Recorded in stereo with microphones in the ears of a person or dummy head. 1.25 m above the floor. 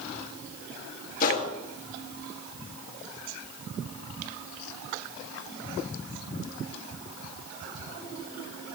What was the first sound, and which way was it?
A gunshot, 45° left (ahead or behind).